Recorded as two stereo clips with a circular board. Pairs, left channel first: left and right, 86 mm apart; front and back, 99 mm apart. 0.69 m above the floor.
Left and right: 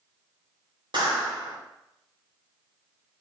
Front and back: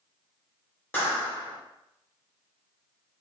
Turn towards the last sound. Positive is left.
turn(degrees=-70)